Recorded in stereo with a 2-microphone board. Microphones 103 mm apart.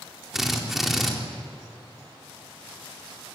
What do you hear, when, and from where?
0.3 s a drill: 5° right (ahead or behind), 3.5 m